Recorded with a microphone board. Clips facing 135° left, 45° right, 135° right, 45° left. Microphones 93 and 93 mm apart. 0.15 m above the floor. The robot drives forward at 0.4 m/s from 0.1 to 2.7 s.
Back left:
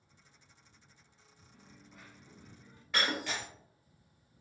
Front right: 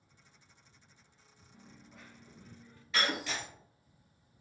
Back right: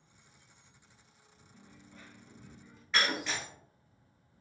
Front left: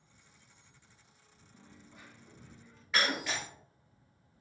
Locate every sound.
1.5 s a dropped coin: 25° left, 0.6 m; by 2.8 s 155° left, 0.6 m
2.9 s breaking glass: 130° left, 1.4 m